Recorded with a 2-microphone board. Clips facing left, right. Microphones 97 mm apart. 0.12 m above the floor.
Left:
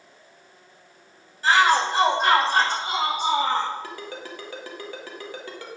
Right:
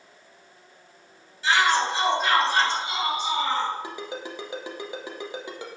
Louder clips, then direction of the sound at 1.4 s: Left 3 dB; 45° left (ahead or behind).